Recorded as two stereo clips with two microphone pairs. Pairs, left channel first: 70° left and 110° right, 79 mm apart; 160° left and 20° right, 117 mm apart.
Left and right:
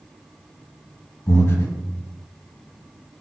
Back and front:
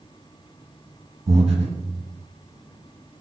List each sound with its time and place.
1.3 s breathing: 15° left, 1.2 m